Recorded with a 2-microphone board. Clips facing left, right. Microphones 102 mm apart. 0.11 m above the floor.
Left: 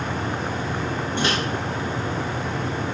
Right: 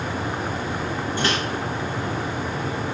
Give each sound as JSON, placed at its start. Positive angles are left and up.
{"t": 1.2, "sound": "a microwave", "side_deg": 25, "distance_m": 0.9}